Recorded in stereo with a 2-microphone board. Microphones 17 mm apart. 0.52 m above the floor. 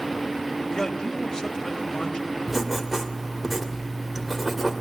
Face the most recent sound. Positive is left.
turn(degrees=-20)  # may be behind; listen again after turning